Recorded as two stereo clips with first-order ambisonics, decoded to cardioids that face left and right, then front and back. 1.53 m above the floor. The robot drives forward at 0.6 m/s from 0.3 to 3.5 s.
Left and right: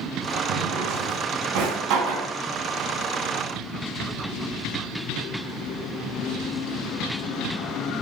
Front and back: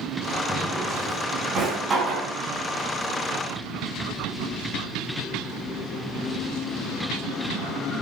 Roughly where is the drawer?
Right.